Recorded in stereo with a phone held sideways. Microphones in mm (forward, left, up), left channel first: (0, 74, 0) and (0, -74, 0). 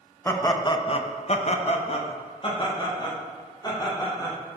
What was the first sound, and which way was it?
Laughter, 15° left (ahead or behind).